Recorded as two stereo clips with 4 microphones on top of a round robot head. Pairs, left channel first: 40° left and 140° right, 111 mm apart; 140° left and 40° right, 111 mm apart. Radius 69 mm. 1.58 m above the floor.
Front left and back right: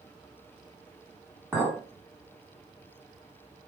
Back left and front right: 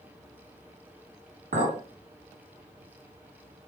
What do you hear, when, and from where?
1.5 s a clink: 60° right, 2.0 m